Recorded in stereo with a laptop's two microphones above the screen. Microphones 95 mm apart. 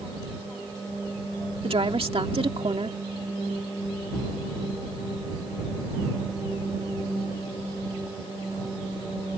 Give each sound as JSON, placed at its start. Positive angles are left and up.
{"t": 1.6, "sound": "a woman speaking", "side_deg": -70}